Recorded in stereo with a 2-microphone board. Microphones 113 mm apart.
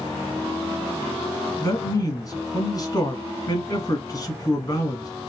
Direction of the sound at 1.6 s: 35° left (ahead or behind).